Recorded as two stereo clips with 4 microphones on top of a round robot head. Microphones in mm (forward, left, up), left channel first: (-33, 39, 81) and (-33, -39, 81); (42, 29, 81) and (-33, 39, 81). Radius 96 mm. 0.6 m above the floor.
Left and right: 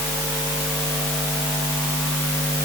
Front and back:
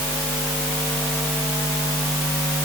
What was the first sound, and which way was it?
Only background noise.